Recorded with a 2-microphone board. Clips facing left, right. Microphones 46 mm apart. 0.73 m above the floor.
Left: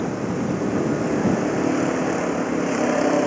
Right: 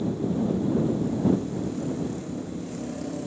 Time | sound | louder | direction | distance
0.0 | a vehicle | left 2 dB | 65° left (ahead or behind) | ?